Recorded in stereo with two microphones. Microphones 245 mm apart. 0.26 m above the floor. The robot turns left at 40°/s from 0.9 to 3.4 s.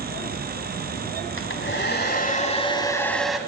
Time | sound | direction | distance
1.4 | a hair dryer | 80° left | 1.3 m